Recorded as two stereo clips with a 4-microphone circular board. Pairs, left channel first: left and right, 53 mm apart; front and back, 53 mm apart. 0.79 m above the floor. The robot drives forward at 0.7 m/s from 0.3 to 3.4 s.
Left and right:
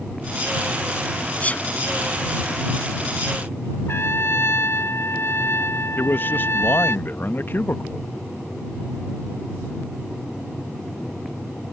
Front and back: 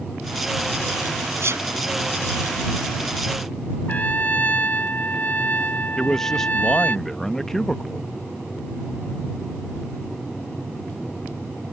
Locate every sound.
1.4 s a sneeze: 150° left
3.9 s a trumpet: 55° left
6.0 s a man speaking: 80° left